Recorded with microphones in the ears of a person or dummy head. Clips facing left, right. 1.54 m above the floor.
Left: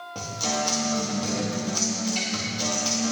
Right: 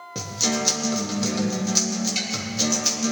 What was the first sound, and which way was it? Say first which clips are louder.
A guitar: right 3 dB; 30° right (ahead or behind).